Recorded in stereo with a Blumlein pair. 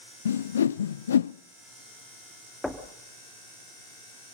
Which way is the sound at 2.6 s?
5° left.